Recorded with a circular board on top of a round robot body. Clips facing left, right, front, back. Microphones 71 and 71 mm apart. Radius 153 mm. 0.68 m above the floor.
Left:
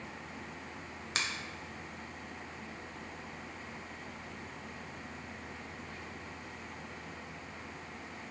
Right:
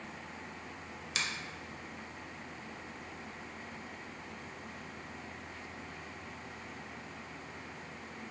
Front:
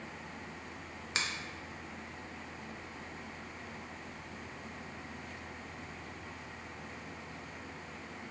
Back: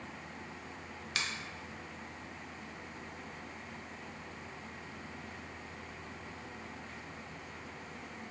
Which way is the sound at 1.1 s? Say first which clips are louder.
Left 1 dB, front 1 dB; 55° left.